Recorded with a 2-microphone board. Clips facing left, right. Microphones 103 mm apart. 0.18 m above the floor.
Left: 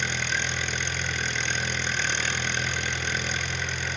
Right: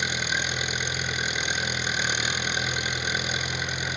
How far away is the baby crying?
I don't hear a baby crying.